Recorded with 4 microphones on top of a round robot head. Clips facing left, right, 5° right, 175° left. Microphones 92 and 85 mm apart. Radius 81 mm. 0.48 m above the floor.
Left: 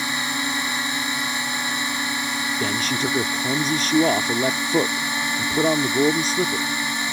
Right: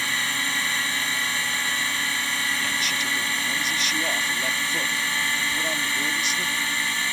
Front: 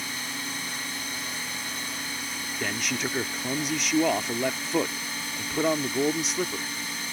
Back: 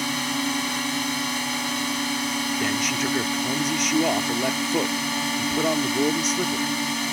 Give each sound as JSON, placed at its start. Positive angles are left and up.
{"t": 0.0, "sound": "a drone", "azimuth_deg": 160}
{"t": 2.6, "sound": "a man speaking", "azimuth_deg": 85}